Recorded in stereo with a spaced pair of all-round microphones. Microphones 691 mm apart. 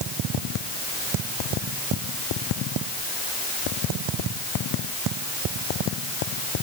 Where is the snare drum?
No snare drum in this recording.